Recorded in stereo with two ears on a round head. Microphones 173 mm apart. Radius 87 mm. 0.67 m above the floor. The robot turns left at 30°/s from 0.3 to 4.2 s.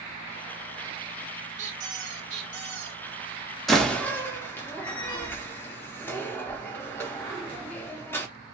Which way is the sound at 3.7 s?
Centre (ahead or behind).